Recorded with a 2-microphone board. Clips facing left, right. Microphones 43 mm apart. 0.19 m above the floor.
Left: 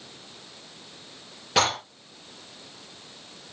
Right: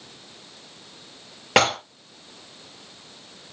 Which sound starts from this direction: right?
Dishes clattering, at 1.6 s.